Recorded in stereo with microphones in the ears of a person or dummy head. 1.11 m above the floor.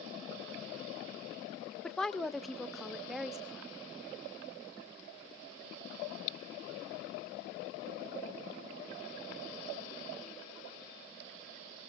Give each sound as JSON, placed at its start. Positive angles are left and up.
{"t": 1.8, "sound": "a woman speaking", "side_deg": 10, "distance_m": 0.7}